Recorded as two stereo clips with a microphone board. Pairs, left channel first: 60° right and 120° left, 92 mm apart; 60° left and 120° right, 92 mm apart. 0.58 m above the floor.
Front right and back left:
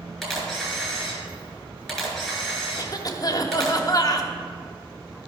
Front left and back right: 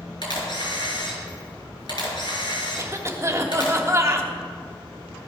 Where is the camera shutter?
30° left, 4 m.